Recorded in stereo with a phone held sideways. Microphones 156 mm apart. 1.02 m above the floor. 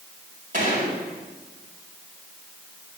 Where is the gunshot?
55° right (ahead or behind), 5 m.